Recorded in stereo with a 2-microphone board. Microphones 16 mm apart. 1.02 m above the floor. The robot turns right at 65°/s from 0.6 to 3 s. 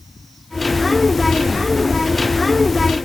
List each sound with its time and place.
Only background noise.